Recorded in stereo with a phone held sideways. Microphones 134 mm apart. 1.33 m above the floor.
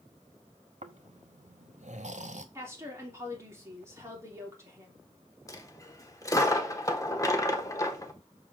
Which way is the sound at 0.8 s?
60° right (ahead or behind).